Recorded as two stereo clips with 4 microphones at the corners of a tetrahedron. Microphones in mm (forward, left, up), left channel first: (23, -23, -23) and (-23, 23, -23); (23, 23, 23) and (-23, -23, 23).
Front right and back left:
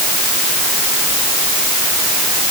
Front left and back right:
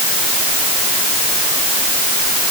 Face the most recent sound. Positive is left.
No sound to turn to.